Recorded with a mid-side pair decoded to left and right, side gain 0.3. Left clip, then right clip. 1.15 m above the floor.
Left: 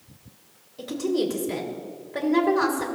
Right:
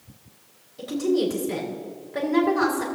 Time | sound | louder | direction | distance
0.8 | a woman speaking | right 2 dB | 25° left | 4.5 m